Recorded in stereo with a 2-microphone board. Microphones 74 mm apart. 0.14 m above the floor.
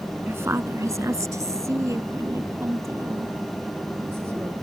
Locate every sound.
0.3 s a woman speaking: 35° right (ahead or behind)